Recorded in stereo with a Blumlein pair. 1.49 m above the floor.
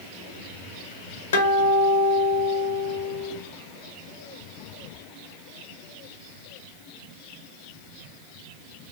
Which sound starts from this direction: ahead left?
A guitar, at 1.3 s.